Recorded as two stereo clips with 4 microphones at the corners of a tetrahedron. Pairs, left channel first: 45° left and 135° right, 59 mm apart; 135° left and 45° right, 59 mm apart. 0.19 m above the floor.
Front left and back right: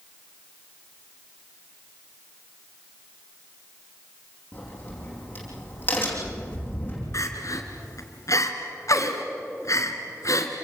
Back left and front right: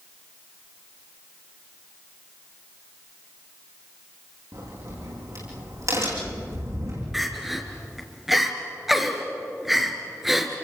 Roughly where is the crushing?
No crushing in this recording.